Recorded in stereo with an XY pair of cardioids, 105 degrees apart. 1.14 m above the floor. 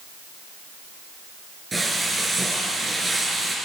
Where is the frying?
25° right, 4 m.